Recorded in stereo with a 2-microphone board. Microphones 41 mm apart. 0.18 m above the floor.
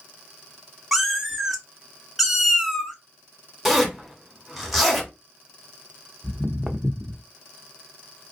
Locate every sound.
0.9 s a cat meowing: centre (ahead or behind), 0.6 m
3.6 s a zipper: 5° right (ahead or behind), 1.0 m
6.2 s footsteps: 10° right (ahead or behind), 0.6 m